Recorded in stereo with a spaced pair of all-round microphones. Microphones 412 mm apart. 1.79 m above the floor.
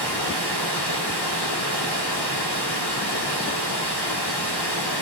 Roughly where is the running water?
Left.